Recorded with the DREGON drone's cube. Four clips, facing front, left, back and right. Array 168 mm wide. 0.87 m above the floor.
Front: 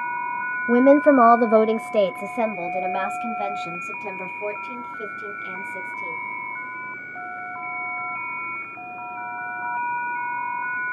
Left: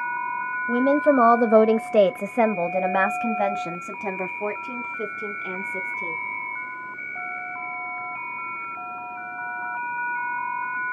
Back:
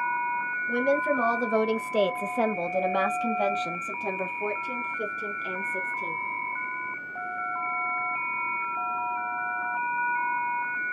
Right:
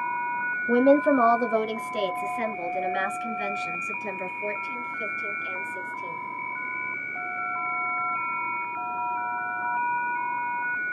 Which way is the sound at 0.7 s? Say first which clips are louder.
Even, front 11 dB; 10° right.